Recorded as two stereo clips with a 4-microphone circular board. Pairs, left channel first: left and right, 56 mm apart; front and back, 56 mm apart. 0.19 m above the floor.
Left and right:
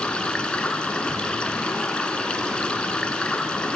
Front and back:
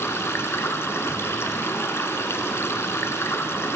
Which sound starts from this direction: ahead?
Running water, at 0.0 s.